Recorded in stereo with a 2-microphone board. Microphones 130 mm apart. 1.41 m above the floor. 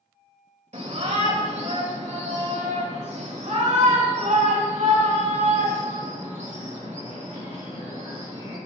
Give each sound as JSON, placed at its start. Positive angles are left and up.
{"t": 0.7, "sound": "a shout", "side_deg": -65, "distance_m": 2.5}